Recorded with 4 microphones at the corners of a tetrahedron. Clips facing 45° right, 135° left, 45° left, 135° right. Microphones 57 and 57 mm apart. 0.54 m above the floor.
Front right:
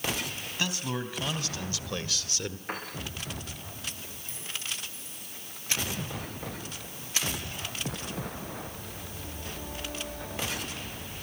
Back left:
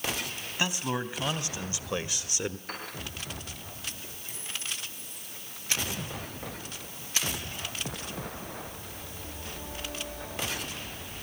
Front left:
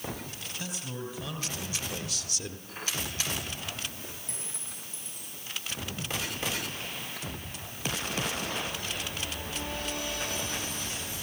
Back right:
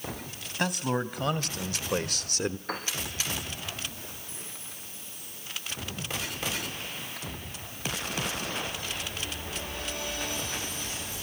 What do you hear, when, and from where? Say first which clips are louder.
0.6 s a man speaking: back left 2 dB, back right 11 dB; 155° right, 3 m
2.7 s a piano: front right 3 dB, back right 7 dB; 120° right, 6.5 m
4.3 s a clink: even, even; 55° left, 10 m